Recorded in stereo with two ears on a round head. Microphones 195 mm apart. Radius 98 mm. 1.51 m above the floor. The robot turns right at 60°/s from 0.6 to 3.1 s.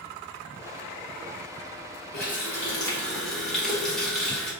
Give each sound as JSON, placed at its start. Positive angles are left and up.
{"t": 2.1, "sound": "a running tap", "azimuth_deg": 120, "distance_m": 1.1}